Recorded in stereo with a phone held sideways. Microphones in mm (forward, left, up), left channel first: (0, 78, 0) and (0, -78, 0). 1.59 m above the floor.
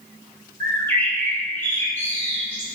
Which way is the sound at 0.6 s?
15° left (ahead or behind).